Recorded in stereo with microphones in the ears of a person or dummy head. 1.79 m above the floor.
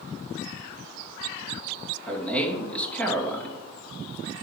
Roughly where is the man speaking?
Centre.